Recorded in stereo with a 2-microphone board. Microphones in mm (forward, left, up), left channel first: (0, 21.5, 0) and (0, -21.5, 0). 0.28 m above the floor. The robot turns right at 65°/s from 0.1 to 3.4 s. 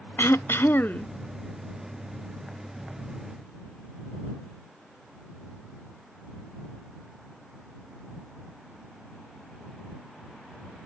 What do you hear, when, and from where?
0.2 s throat clearing: 80° left; by 1.1 s 140° left